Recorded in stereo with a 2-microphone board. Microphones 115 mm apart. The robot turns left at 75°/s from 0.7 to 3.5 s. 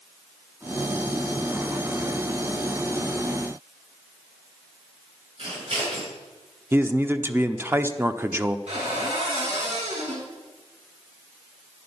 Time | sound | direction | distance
5.4 | scissors | 55° right (ahead or behind) | 8.5 m
6.7 | a man speaking | 20° right (ahead or behind) | 0.9 m
8.7 | a cupboard door | 80° right | 6 m